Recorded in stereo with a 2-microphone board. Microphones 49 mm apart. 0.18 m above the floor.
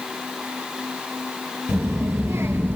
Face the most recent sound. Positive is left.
turn(degrees=-50)  # may be behind; listen again after turning